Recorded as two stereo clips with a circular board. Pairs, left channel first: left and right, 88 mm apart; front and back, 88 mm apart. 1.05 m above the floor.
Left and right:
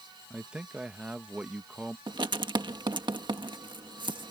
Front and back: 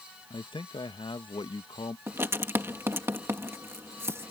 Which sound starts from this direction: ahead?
A man speaking, at 0.3 s.